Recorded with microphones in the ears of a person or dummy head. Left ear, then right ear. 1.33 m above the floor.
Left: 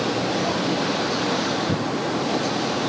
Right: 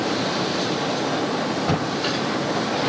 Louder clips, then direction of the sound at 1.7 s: Right 1 dB; 65° right (ahead or behind).